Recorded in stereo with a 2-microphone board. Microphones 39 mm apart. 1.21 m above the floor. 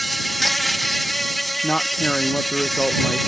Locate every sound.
0.0 s an insect: centre (ahead or behind)
1.6 s a man speaking: 25° left (ahead or behind)